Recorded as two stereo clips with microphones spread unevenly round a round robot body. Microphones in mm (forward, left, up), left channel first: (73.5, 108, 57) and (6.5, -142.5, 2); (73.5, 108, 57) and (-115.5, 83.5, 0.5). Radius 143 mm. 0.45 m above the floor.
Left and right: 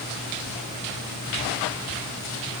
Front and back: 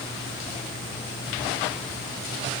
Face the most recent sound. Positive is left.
No sound to turn to.